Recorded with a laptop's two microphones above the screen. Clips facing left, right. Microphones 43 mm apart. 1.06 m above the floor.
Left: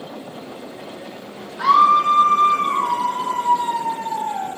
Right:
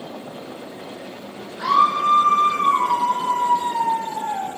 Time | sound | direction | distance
1.6 | a scream | 75° left (ahead or behind) | 1.0 m